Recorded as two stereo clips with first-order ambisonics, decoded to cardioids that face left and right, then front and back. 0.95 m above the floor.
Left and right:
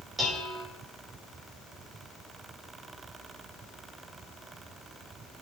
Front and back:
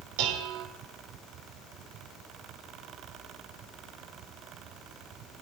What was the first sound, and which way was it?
Dishes clattering, 170° right.